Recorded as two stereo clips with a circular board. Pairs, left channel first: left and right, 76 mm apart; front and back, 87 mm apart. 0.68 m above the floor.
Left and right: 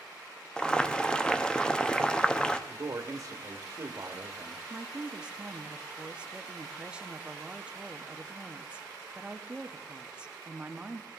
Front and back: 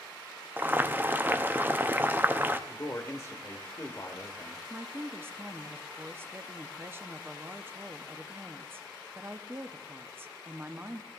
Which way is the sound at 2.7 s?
55° right.